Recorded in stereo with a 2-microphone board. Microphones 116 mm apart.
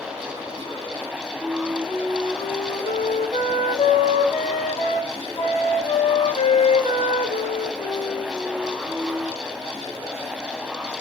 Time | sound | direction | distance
1.4 | a flute | 65° left (ahead or behind) | 1.6 m